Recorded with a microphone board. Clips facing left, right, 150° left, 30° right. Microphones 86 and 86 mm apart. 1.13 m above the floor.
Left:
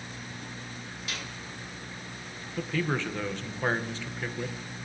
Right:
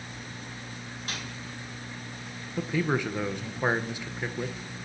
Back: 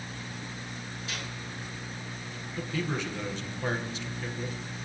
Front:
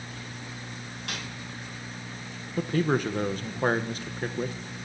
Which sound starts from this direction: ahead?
A man speaking, at 2.6 s.